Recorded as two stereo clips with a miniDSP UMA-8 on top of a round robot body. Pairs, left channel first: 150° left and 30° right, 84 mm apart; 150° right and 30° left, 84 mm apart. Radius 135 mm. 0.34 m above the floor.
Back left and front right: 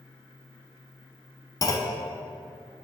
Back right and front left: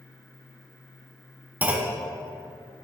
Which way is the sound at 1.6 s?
100° left.